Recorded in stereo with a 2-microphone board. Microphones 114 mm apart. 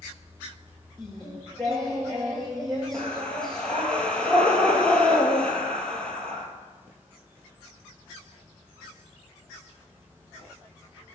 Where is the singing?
5° left (ahead or behind), 1.7 m.